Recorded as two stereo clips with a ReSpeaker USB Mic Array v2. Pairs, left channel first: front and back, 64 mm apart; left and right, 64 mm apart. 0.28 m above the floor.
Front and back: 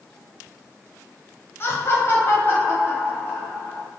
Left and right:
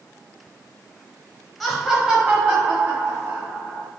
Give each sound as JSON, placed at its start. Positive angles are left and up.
{"t": 1.6, "sound": "laughter", "azimuth_deg": 0, "distance_m": 1.1}